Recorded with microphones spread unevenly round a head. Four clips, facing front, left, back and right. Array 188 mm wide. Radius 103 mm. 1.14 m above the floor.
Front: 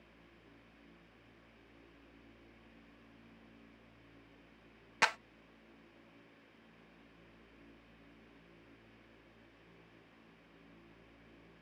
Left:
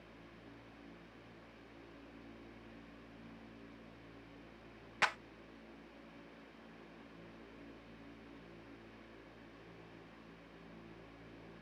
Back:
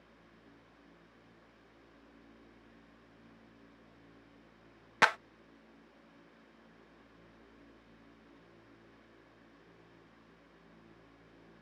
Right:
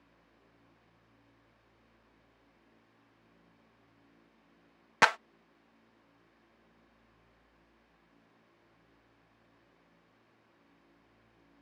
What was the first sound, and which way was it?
A clap, 110° right.